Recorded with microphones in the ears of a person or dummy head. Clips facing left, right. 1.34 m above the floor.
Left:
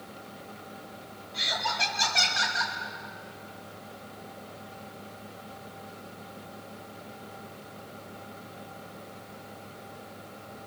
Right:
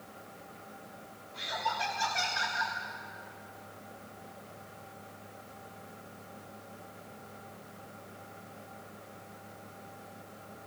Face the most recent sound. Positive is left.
turn(degrees=55)  # may be behind; listen again after turning